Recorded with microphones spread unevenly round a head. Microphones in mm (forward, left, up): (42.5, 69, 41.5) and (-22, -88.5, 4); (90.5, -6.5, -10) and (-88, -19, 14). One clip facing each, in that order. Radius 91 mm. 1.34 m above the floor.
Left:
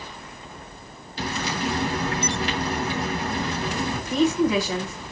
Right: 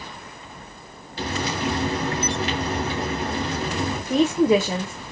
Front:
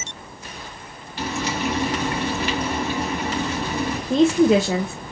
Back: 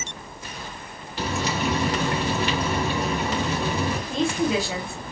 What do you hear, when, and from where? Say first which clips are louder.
1.2 s frying: right 2 dB, front 1 dB; 160° right, 3.5 m
4.1 s a woman speaking: right 3 dB, front 10 dB; 45° right, 0.6 m